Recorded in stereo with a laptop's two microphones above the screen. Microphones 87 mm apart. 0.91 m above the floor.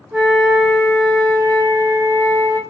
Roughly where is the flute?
Right.